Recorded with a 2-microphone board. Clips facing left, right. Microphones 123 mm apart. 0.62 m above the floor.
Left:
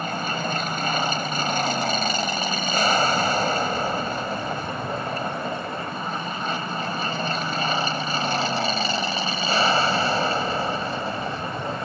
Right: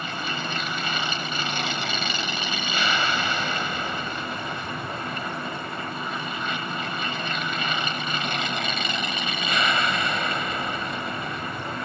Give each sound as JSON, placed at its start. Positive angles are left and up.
{"t": 0.0, "sound": "an aircraft", "side_deg": 45}